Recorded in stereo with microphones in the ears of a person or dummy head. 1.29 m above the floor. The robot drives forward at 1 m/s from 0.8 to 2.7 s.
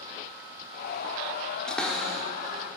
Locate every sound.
1.7 s a cupboard door: centre (ahead or behind), 0.6 m